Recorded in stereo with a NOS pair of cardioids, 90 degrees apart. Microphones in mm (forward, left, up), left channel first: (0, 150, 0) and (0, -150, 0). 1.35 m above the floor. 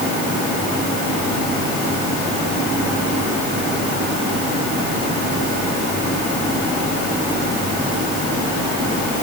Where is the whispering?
I don't hear whispering.